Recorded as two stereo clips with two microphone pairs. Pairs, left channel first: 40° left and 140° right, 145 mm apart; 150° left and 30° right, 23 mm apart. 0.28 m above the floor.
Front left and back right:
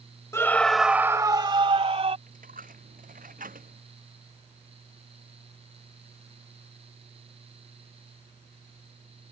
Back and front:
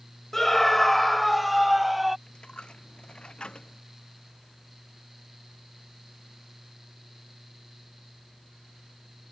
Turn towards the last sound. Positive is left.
turn(degrees=-165)